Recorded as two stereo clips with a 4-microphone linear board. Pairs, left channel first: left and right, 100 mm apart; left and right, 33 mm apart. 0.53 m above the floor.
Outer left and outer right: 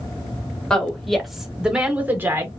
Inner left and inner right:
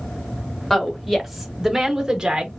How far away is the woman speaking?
About 2 m.